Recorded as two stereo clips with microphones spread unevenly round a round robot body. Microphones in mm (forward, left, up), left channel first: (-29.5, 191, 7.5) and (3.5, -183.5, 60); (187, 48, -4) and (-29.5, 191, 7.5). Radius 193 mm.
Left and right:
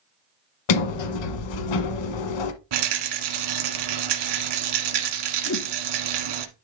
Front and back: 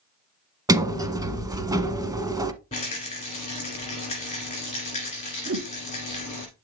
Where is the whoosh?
130° left, 1.1 m.